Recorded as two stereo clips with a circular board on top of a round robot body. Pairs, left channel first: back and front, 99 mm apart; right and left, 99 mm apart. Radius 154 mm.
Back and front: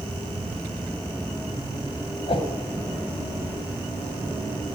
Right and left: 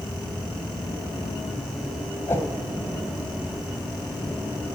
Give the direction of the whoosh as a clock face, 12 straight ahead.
5 o'clock.